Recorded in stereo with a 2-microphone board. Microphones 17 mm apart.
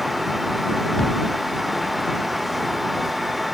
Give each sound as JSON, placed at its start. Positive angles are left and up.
{"t": 1.0, "sound": "a thud", "side_deg": 50}